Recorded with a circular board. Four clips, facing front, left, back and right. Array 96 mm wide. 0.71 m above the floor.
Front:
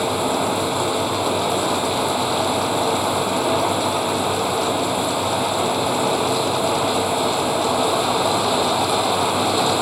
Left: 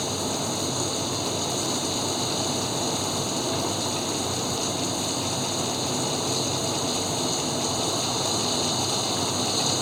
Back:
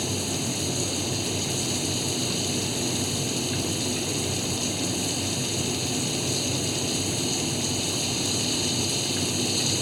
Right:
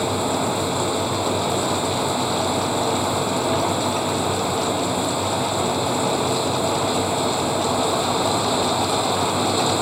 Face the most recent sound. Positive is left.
turn(degrees=-25)